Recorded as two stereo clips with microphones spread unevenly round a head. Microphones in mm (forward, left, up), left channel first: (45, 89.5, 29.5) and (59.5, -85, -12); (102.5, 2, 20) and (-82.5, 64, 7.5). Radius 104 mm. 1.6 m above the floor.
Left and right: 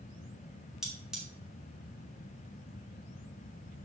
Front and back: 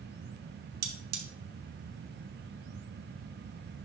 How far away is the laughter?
No laughter in this recording.